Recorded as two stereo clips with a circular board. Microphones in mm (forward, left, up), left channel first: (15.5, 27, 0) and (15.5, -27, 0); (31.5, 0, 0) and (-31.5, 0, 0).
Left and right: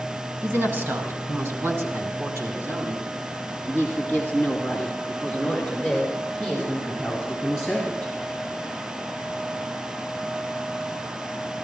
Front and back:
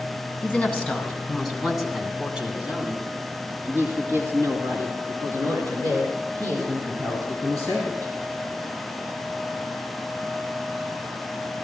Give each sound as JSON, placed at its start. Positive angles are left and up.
{"t": 0.4, "sound": "a woman speaking", "azimuth_deg": -65, "distance_m": 2.5}